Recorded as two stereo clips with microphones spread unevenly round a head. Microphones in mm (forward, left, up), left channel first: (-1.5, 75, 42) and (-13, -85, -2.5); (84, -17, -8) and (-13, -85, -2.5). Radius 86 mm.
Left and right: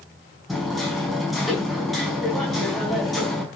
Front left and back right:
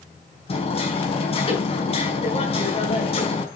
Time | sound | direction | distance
0.5 | hammering | straight ahead | 5 m